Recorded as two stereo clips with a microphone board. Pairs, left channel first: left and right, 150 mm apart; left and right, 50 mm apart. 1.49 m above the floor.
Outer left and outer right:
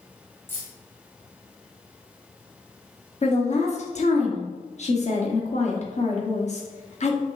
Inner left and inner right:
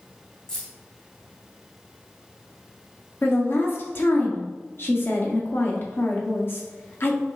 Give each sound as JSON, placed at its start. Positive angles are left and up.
{"t": 0.5, "sound": "keys jangling", "side_deg": 15, "distance_m": 1.1}
{"t": 3.2, "sound": "a woman speaking", "side_deg": 50, "distance_m": 0.9}